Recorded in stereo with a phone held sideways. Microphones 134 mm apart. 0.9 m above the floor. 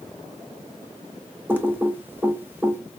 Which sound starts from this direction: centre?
Typing on a keyboard, at 1.5 s.